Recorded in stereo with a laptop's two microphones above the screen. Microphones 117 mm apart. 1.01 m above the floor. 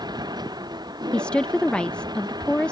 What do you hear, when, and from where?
0.0 s a machine running: 35° right (ahead or behind)
1.1 s a woman speaking: 10° left (ahead or behind)